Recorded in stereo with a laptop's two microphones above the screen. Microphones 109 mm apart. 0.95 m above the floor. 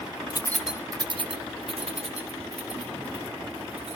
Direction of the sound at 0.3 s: 40° left (ahead or behind).